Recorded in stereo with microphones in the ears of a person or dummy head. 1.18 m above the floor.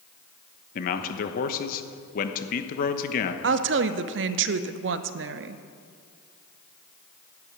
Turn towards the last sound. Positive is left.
turn(degrees=-60)  # may be behind; listen again after turning